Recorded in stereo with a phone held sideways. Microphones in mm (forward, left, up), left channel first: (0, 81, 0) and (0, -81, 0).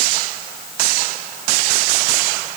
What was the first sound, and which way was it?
Only background noise.